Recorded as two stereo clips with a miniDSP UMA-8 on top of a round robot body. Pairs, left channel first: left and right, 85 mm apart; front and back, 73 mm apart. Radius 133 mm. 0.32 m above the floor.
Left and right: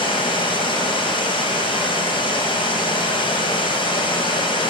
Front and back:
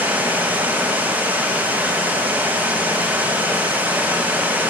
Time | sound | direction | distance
0.0 | running water | 110° left | 1.6 m